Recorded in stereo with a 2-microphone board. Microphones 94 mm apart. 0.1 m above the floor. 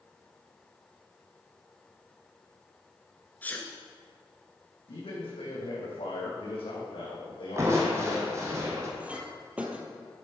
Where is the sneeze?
20° left (ahead or behind), 1.4 m.